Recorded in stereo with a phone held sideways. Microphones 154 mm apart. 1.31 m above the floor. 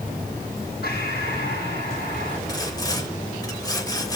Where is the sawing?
25° left (ahead or behind), 3 m.